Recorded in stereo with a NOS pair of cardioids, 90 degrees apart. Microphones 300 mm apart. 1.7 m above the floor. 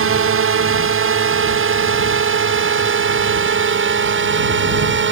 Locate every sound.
0.0 s a drone: 45° right; by 5.1 s 40° right